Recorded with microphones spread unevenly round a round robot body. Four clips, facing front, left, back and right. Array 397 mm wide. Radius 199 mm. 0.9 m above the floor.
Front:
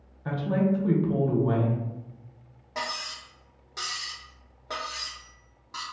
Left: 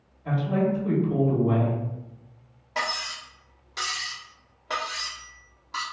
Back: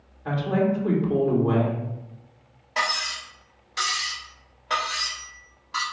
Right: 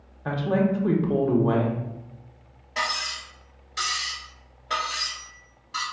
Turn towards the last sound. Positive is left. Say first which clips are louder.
# right 1 dB, back 7 dB
turn(degrees=20)